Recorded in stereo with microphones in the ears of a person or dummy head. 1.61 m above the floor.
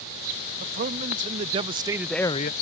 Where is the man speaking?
45° right (ahead or behind); by 2.5 s 50° left (ahead or behind).